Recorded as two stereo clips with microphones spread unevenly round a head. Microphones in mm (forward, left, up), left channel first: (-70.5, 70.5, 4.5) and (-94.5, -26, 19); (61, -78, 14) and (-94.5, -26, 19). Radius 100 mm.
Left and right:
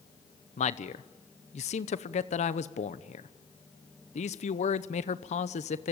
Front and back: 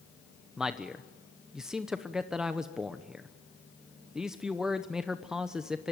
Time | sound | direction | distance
0.6 | a man speaking | 75° left | 0.8 m